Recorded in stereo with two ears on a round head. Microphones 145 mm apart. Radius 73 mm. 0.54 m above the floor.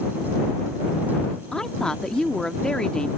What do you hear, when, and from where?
1.5 s a woman speaking: 5° left (ahead or behind)